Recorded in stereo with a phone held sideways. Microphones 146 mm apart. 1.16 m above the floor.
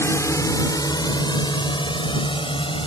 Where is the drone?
20° left (ahead or behind); by 2.9 s 35° left (ahead or behind).